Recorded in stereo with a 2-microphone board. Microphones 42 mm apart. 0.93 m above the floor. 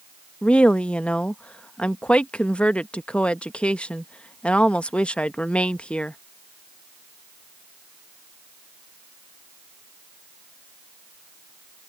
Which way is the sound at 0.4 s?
25° left (ahead or behind).